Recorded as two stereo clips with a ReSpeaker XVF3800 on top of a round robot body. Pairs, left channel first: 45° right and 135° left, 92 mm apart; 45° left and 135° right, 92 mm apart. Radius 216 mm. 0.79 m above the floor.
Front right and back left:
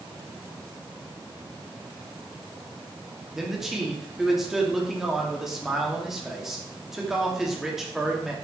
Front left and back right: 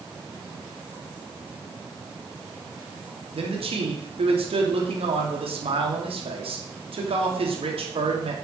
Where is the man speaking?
140° right, 2.5 m.